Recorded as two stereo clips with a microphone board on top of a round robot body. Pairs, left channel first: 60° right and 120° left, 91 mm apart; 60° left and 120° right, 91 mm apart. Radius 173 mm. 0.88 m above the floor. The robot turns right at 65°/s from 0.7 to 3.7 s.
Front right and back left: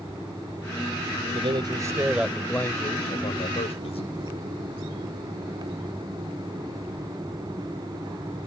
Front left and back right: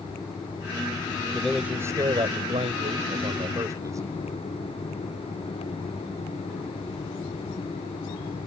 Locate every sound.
1.3 s a man speaking: 145° left; by 4.1 s 65° right